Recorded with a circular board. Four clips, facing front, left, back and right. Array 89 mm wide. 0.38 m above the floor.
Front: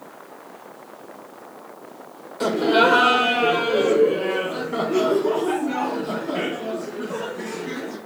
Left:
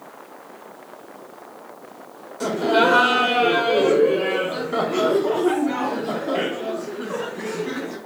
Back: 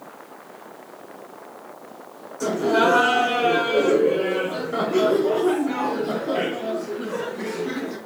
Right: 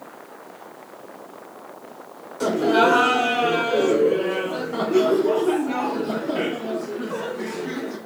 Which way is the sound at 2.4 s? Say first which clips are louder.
Right 1 dB, front 2 dB; straight ahead.